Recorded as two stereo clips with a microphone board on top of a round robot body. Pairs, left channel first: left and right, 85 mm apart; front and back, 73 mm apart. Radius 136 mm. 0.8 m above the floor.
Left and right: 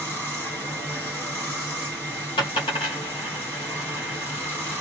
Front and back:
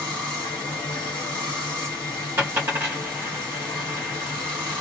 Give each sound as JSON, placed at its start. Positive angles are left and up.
{"t": 0.0, "sound": "running water", "azimuth_deg": 25, "distance_m": 1.5}
{"t": 2.4, "sound": "a dropped coin", "azimuth_deg": 115, "distance_m": 0.7}